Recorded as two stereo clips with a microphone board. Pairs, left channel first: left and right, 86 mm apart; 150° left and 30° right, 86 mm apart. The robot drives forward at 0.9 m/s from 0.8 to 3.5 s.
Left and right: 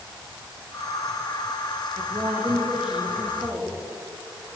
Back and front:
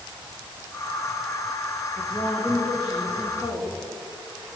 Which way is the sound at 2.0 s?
150° right.